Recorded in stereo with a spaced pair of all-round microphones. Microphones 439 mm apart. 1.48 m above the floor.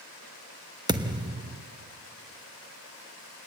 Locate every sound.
0.9 s a thud: 10° right (ahead or behind), 0.9 m